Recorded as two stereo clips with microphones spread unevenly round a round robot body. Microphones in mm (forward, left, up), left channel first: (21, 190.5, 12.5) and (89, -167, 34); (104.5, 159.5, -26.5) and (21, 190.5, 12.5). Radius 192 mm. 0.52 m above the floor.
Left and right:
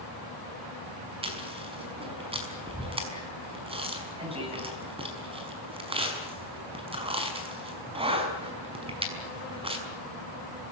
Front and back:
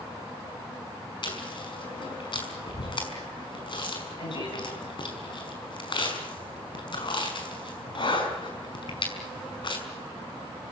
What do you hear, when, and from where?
1.2 s chewing: 5° right, 5.5 m